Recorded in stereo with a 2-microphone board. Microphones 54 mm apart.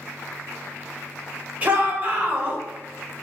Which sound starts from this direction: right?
A shout, at 1.6 s.